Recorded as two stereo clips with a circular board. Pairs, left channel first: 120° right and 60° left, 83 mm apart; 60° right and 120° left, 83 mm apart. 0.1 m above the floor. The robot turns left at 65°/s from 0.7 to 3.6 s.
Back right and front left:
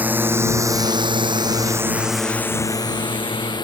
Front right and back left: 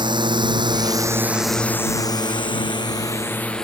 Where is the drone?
130° left; by 3.7 s 140° right.